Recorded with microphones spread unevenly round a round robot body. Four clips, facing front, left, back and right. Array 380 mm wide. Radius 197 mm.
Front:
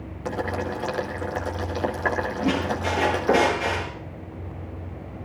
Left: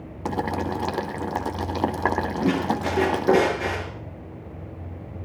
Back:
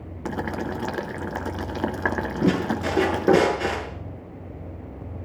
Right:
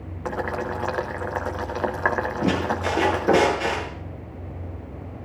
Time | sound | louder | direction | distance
0.2 | boiling | left 1 dB, front 1 dB | 135° left | 0.7 m
2.4 | a squeak | left 1 dB, back 4 dB | 170° left | 6 m